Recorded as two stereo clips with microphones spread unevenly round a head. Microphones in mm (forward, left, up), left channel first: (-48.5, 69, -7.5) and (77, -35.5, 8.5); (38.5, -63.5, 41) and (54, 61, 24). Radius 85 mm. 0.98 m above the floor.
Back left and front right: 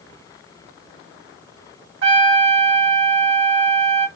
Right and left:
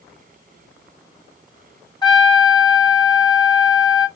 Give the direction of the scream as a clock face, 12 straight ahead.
I don't hear a scream.